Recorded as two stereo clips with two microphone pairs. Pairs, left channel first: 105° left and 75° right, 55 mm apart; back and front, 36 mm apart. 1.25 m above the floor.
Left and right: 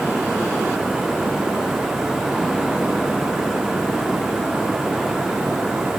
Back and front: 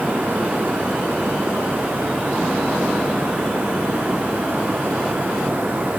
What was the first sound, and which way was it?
Only background noise.